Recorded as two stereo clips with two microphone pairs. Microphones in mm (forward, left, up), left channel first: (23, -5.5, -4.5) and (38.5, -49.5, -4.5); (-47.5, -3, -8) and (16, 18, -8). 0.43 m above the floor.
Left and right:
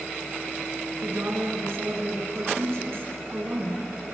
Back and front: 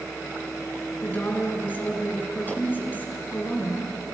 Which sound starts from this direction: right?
A woman speaking, at 1.0 s.